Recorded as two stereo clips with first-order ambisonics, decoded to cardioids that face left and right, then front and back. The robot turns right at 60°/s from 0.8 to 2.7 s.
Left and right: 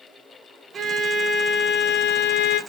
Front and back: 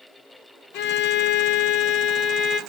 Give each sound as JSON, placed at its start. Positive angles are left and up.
{"t": 0.7, "sound": "a violin", "azimuth_deg": -20, "distance_m": 0.8}